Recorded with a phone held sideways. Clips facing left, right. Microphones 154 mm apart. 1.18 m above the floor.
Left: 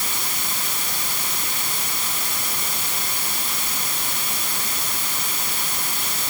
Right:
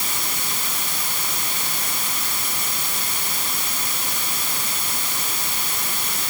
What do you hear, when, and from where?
Only background noise.